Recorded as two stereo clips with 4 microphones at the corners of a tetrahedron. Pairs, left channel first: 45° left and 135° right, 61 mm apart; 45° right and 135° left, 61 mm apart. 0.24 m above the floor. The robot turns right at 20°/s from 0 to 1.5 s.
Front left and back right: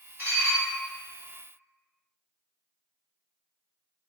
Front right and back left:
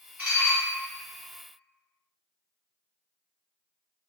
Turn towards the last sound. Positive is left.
turn(degrees=-145)